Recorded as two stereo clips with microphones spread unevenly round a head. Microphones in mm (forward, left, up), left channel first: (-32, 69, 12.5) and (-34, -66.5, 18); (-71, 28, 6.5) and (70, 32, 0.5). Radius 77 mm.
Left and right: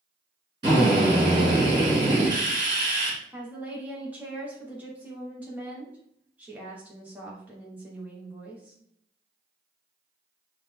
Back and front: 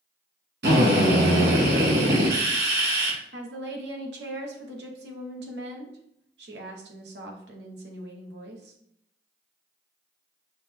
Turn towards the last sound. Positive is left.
turn(degrees=-10)